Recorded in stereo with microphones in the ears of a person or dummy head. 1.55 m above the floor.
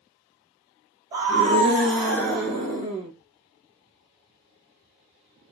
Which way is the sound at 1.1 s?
20° right (ahead or behind).